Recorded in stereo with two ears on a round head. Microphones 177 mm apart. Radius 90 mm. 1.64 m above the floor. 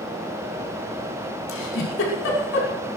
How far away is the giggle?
About 5.5 m.